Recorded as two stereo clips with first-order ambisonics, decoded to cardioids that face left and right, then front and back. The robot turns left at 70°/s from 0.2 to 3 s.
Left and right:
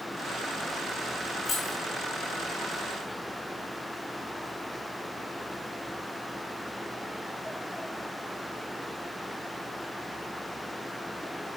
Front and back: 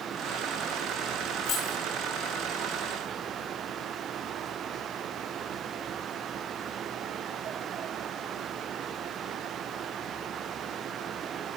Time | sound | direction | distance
1.4 | keys jangling | 35° left | 4 m